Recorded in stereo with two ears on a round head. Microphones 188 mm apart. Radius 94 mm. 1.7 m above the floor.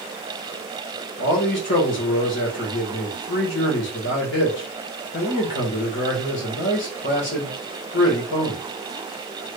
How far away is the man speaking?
About 1.6 m.